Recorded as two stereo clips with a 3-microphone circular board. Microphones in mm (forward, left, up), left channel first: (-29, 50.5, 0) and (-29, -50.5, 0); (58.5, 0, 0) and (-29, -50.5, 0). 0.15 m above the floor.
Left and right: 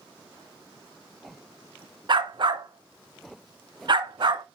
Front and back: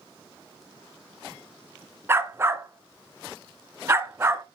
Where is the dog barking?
90° right, 0.5 m.